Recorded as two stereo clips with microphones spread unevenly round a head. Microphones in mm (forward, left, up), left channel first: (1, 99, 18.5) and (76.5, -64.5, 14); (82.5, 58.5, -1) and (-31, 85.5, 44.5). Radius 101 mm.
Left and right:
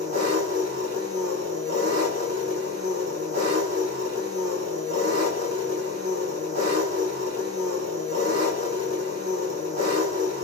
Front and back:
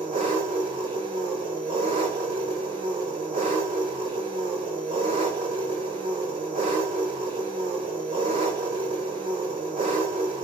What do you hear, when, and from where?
0.0 s an engine running: 125° right, 2.5 m